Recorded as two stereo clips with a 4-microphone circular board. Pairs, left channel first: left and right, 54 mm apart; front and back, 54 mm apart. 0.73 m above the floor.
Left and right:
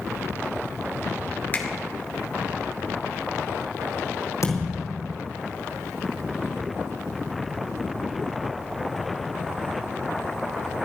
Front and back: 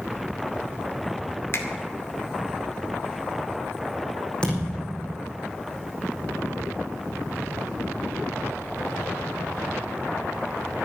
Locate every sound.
1.5 s a finger snap: 35° left, 2 m
4.4 s a thud: 75° left, 5 m